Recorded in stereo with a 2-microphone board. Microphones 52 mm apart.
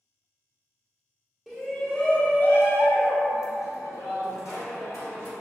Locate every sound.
1.5 s a shout: centre (ahead or behind), 0.8 m; by 5.3 s 65° left (ahead or behind), 1.5 m